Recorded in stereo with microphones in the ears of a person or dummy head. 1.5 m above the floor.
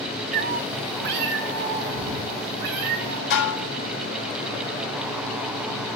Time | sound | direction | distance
0.3 | a cat meowing | 45° right (ahead or behind) | 0.9 m
3.3 | dishes clattering | 70° left (ahead or behind) | 4.5 m